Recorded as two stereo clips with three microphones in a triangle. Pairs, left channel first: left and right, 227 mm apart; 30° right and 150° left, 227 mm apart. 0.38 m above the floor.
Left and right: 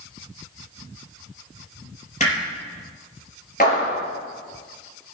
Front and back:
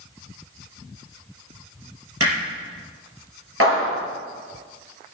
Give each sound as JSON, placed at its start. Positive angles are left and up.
{"t": 2.2, "sound": "hammering", "azimuth_deg": 150, "distance_m": 4.5}
{"t": 3.6, "sound": "a clap", "azimuth_deg": 140, "distance_m": 5.0}